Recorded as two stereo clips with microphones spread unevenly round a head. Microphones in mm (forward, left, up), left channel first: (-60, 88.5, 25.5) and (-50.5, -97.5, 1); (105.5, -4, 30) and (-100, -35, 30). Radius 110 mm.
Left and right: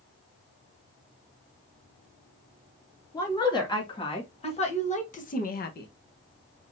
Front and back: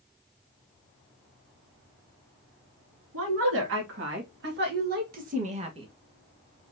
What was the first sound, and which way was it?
A woman speaking, 165° left.